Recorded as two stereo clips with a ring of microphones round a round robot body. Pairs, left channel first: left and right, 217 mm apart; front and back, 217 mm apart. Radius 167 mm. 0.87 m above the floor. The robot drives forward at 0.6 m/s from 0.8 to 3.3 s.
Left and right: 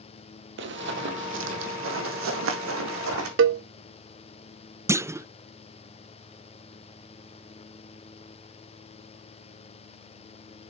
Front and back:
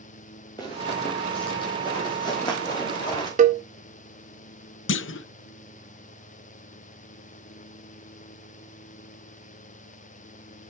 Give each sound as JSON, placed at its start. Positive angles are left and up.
{"t": 0.6, "sound": "running footsteps", "azimuth_deg": -75, "distance_m": 1.4}
{"t": 3.4, "sound": "a cowbell", "azimuth_deg": -120, "distance_m": 0.9}
{"t": 4.9, "sound": "a clunk", "azimuth_deg": -10, "distance_m": 0.6}